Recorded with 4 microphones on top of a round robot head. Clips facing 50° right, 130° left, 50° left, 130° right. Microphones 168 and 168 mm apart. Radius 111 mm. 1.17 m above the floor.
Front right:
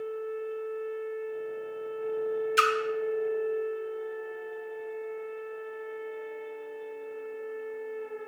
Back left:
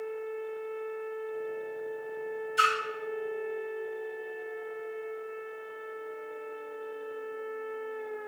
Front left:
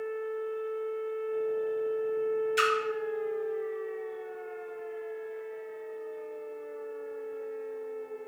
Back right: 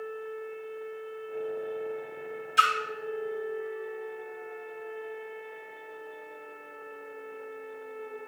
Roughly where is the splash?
Ahead right.